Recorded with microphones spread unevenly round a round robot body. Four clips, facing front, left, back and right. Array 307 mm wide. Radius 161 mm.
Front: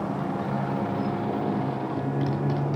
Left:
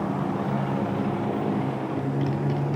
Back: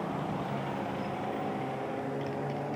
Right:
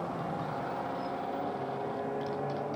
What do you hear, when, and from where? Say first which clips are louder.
0.0 s a motorcycle: left 8 dB, front 5 dB; 65° left; by 2.8 s 50° left